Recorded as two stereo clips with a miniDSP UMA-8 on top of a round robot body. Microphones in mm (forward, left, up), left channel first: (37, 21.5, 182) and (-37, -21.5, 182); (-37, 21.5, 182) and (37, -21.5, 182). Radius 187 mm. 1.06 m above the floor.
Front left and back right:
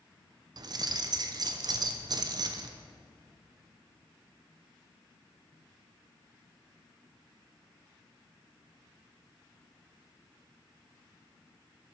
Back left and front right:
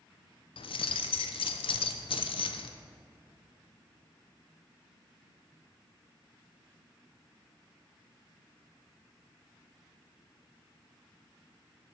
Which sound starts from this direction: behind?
Keys jangling, at 0.6 s.